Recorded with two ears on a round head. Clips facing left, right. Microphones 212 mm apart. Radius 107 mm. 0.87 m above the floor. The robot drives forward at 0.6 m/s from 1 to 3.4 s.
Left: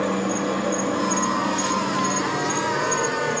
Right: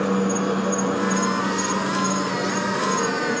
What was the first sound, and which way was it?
An insect, 15° right (ahead or behind).